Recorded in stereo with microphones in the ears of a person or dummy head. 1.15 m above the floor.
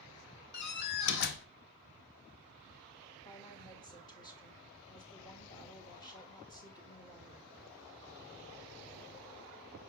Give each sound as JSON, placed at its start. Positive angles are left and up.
{"t": 0.5, "sound": "a door slam", "side_deg": 55, "distance_m": 0.7}
{"t": 3.2, "sound": "a woman speaking", "side_deg": 20, "distance_m": 1.4}